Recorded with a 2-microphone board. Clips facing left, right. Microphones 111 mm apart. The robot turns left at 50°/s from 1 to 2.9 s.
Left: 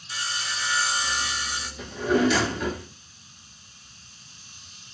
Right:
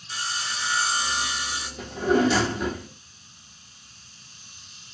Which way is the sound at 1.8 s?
115° right.